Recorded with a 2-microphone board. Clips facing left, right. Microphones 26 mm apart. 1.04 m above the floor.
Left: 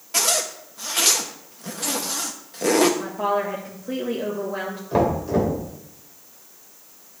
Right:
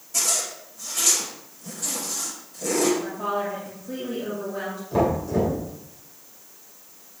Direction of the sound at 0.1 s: 55° left (ahead or behind).